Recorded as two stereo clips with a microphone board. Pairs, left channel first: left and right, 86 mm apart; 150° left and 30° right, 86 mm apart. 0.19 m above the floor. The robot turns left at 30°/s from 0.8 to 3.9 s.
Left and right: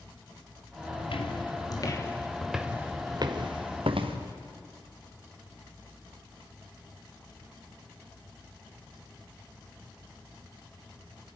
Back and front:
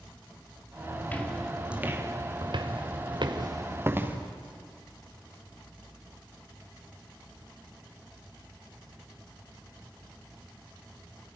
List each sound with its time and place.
1.0 s footsteps: 85° left, 3.5 m; by 4.2 s 95° right, 3.5 m